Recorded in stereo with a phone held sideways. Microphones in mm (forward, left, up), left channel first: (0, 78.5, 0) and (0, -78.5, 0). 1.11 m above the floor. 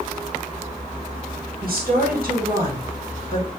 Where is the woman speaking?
75° right (ahead or behind), 1.6 m.